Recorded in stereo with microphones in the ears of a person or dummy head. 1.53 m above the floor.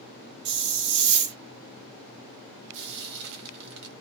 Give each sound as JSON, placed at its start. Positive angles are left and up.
{"t": 0.5, "sound": "a hiss", "side_deg": -60, "distance_m": 0.9}
{"t": 2.7, "sound": "frying", "side_deg": -60, "distance_m": 1.1}